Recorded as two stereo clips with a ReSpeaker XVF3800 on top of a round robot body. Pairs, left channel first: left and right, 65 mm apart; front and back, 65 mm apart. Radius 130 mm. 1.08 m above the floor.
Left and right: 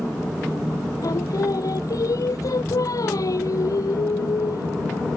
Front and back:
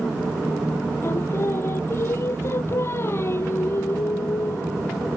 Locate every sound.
1.0 s singing: 55° left